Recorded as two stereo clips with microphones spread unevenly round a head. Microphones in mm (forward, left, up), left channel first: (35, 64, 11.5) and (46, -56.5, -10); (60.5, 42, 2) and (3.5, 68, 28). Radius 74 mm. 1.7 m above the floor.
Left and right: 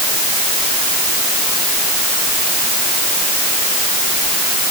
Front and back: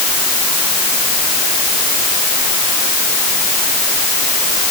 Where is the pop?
I don't hear a pop.